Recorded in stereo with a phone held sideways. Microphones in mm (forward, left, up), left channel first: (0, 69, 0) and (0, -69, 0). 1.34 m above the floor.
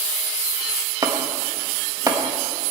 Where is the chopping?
30° right (ahead or behind), 1.2 m.